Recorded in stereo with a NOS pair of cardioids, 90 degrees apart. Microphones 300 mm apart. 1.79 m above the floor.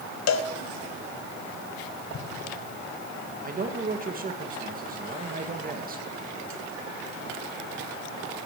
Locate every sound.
0.3 s a cowbell: 60° left, 1.2 m
2.1 s an explosion: 45° left, 1.6 m
3.4 s a man speaking: 30° right, 2 m